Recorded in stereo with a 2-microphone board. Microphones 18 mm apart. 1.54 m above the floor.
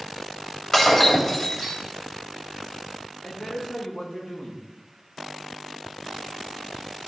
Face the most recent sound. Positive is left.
turn(degrees=85)